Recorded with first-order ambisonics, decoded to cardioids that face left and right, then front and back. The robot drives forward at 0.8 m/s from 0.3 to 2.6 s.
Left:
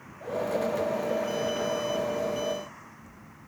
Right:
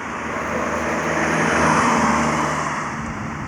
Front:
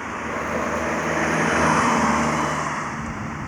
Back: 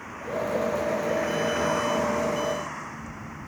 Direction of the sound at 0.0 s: 60° right.